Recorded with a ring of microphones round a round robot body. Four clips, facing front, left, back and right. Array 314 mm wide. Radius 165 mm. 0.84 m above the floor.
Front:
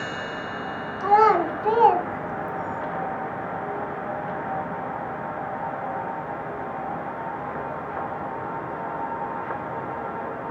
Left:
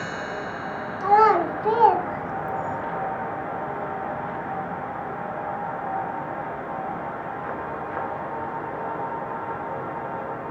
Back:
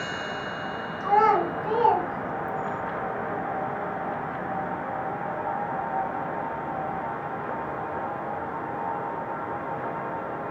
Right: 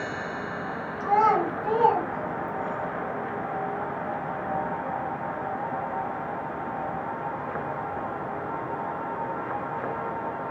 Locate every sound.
1.0 s a child speaking: 45° left, 1.6 m; by 2.8 s 85° left, 0.6 m